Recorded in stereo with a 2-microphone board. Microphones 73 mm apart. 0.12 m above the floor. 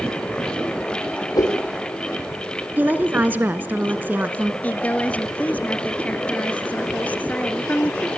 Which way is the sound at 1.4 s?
60° left (ahead or behind).